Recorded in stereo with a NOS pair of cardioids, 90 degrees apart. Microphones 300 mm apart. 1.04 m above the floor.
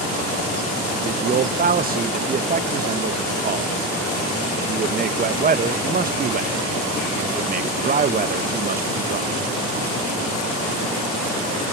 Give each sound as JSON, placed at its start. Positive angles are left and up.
{"t": 1.0, "sound": "a man speaking", "azimuth_deg": -30, "distance_m": 0.6}